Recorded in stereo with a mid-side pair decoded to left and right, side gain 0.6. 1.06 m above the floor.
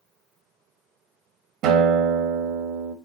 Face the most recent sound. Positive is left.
turn(degrees=-65)